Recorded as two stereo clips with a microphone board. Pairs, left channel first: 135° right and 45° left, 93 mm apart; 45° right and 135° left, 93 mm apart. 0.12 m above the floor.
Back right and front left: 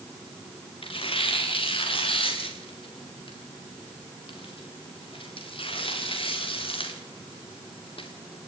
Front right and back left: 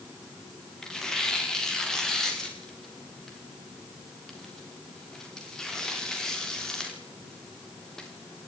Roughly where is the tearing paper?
Behind right.